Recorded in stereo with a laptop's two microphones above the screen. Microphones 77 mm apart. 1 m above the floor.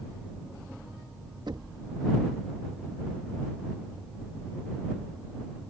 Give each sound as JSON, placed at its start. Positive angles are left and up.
{"t": 1.5, "sound": "knocking", "side_deg": -75}